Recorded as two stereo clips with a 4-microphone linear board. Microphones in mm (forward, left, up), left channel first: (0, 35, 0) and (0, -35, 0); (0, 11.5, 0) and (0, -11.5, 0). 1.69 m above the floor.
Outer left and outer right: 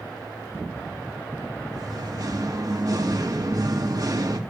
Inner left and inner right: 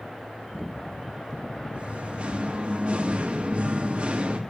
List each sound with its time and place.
1.7 s singing: 60° right (ahead or behind), 2.5 m